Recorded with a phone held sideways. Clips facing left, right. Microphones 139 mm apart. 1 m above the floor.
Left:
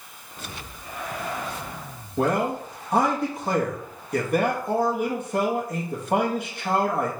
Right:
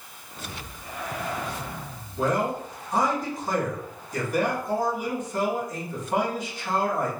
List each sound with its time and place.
2.2 s a man speaking: 60° left (ahead or behind), 1.2 m